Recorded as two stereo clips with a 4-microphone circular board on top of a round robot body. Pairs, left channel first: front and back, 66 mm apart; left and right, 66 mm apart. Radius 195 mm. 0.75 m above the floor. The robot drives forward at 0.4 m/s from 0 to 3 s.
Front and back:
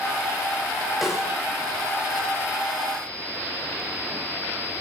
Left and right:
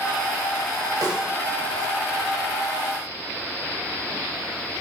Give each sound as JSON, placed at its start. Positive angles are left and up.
{"t": 1.0, "sound": "a snare drum", "azimuth_deg": -90, "distance_m": 1.9}